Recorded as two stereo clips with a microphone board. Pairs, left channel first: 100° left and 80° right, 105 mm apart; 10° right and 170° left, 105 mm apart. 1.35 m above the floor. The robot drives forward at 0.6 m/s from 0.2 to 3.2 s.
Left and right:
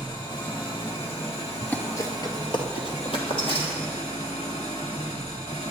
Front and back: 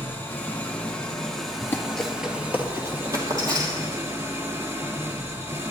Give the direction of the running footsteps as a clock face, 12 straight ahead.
11 o'clock.